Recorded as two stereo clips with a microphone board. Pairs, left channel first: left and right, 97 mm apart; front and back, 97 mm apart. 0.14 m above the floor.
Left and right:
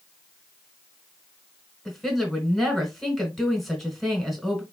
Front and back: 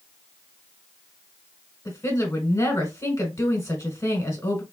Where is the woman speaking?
Straight ahead, 1.3 m.